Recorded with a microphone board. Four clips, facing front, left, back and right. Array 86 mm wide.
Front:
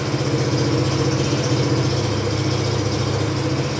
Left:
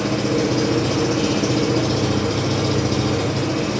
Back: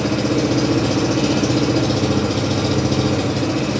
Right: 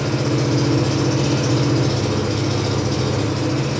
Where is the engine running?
Straight behind, 3.5 m.